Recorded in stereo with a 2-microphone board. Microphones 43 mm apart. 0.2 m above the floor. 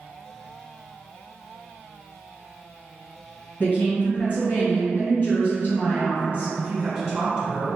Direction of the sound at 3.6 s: 40° left (ahead or behind).